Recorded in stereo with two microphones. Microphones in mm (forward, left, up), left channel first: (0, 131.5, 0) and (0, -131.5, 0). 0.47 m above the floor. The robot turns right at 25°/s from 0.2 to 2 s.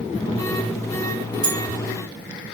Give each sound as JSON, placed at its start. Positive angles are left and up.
{"t": 1.4, "sound": "a bell", "side_deg": -5, "distance_m": 1.7}